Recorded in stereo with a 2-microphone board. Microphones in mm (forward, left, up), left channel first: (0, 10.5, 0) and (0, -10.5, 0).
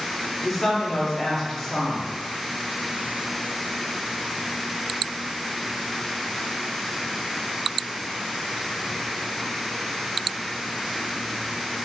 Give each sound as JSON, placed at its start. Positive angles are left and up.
{"t": 0.4, "sound": "a woman speaking", "side_deg": 30, "distance_m": 0.7}